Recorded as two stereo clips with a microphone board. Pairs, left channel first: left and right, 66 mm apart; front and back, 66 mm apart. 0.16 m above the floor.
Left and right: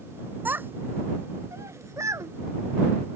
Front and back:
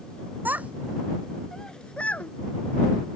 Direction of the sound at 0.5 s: 135° right.